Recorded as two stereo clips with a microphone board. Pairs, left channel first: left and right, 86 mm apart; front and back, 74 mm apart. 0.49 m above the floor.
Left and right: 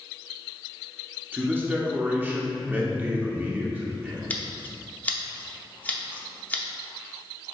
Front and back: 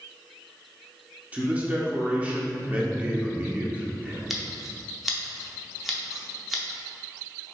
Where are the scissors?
95° left, 0.6 m.